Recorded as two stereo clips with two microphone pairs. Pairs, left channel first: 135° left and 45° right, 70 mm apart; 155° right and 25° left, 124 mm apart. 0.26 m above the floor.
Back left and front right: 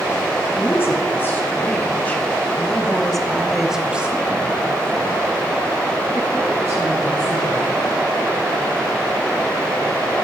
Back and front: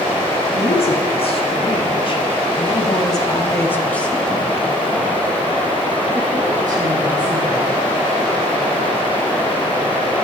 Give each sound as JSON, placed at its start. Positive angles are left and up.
{"t": 0.5, "sound": "a woman speaking", "azimuth_deg": -175, "distance_m": 2.5}